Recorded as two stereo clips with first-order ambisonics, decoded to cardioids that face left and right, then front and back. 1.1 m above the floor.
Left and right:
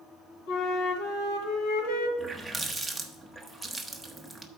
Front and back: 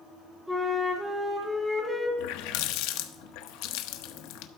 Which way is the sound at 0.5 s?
95° left.